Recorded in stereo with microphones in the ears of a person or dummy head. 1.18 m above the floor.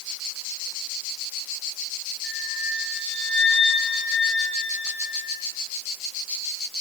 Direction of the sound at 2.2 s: 5° left (ahead or behind).